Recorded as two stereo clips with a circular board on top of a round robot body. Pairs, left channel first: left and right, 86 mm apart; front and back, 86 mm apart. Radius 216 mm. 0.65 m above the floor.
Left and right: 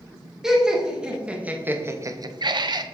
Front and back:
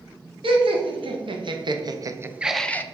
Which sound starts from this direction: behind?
Laughter, at 0.4 s.